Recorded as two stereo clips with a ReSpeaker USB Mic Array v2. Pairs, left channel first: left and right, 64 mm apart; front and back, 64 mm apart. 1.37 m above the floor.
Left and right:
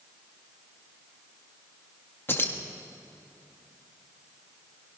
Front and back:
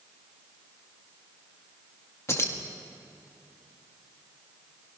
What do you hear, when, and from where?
2.3 s keys jangling: 40° left, 1.6 m